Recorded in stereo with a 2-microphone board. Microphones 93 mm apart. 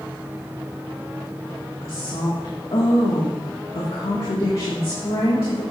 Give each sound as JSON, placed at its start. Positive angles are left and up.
{"t": 1.8, "sound": "a woman speaking", "side_deg": 70, "distance_m": 2.0}